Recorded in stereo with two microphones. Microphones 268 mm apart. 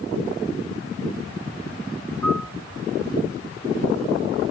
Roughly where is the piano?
Right.